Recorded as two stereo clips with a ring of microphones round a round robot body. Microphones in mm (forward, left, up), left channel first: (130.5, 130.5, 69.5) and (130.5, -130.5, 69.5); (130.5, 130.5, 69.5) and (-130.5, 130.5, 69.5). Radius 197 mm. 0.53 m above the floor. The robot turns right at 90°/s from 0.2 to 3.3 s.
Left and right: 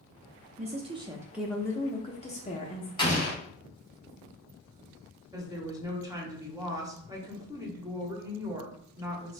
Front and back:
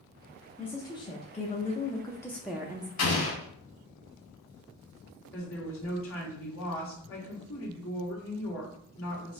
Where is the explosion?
15° left, 1.3 m; by 3.4 s 45° left, 1.3 m.